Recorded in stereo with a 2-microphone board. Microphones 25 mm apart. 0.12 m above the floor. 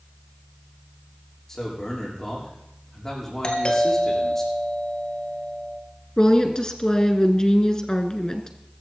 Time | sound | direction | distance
1.5 | a man speaking | 20° left (ahead or behind) | 7 m
3.4 | a doorbell | 40° left (ahead or behind) | 3 m
6.2 | a woman speaking | 30° left (ahead or behind) | 1.5 m